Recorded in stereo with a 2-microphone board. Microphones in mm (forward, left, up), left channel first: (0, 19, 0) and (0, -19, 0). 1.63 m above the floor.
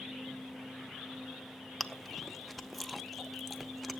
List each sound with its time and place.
1.8 s chewing: 5° left (ahead or behind), 0.7 m